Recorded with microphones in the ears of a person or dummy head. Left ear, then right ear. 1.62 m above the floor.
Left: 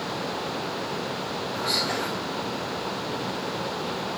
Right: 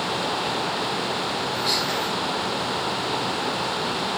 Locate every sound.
1.5 s whispering: 35° right (ahead or behind), 1.0 m